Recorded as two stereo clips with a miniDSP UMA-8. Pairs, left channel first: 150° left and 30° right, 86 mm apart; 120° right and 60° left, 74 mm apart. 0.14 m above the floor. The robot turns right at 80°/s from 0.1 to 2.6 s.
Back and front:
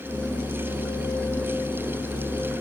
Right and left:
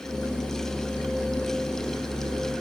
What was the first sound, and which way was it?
Only background noise.